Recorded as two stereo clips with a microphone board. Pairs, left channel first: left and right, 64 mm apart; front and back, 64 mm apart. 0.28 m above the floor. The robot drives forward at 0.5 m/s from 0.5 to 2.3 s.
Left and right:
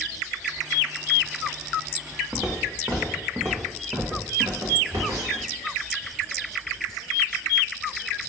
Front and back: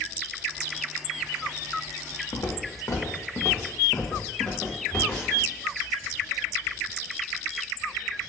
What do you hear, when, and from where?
2.3 s footsteps: 10° right, 0.9 m; by 5.5 s 75° right, 1.9 m